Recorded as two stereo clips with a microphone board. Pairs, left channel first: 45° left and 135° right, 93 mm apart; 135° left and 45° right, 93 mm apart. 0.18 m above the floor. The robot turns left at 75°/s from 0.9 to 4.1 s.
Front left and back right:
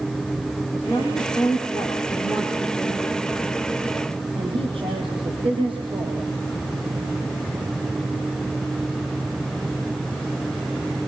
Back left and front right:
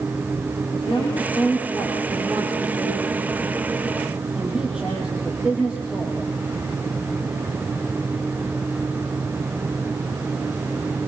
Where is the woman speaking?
115° left, 6.5 m; by 6.2 s 125° right, 6.5 m.